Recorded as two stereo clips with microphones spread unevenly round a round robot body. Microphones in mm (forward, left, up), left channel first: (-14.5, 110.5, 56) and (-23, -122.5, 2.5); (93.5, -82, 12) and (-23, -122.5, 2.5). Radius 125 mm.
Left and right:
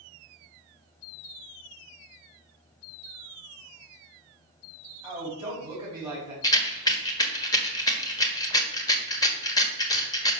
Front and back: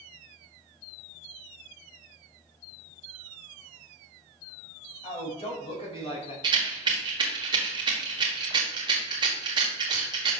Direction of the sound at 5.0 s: 20° right.